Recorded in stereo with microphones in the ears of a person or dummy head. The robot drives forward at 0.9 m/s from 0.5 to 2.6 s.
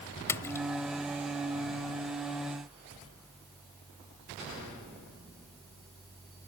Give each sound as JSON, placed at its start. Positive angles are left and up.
{"t": 0.3, "sound": "a splash", "side_deg": 15}